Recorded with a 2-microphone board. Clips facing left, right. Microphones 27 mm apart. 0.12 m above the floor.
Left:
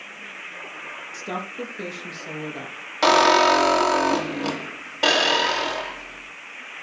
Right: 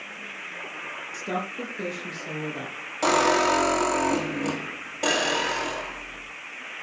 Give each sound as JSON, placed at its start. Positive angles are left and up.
{"t": 1.1, "sound": "a woman speaking", "side_deg": 15, "distance_m": 4.5}
{"t": 3.0, "sound": "a squeak", "side_deg": 50, "distance_m": 1.7}